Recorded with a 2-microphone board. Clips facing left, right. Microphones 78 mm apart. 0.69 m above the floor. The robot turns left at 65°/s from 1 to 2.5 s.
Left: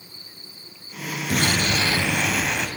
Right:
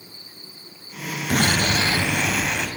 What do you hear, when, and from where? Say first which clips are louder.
1.3 s an explosion: right 2 dB; 110° right, 0.9 m; by 2.7 s 170° left, 0.9 m